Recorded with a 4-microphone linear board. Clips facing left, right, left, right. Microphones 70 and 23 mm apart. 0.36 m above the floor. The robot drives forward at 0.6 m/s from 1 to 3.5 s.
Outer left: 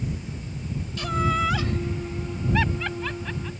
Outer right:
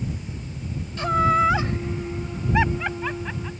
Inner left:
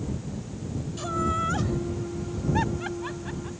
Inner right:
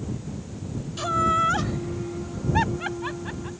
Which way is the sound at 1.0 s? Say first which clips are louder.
Outer right 6 dB, inner right 6 dB; 35° right (ahead or behind).